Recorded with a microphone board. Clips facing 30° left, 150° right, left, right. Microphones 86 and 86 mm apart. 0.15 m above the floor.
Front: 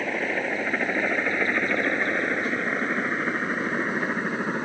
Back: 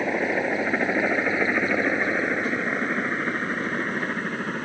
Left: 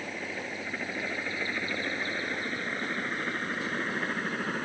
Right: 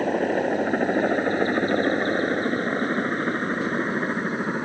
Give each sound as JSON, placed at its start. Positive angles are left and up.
{"t": 0.0, "sound": "a helicopter", "azimuth_deg": -75}